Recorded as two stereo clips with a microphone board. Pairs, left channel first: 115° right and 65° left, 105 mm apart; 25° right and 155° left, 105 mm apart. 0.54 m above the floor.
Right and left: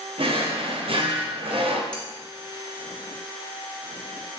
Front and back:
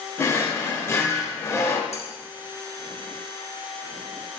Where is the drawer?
40° left, 0.6 m.